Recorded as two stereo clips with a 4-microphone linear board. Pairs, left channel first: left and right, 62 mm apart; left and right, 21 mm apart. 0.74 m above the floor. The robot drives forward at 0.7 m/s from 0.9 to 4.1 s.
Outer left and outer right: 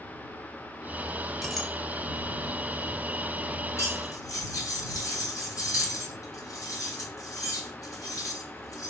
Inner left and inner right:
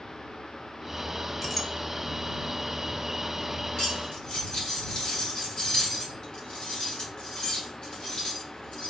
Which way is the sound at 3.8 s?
45° left (ahead or behind).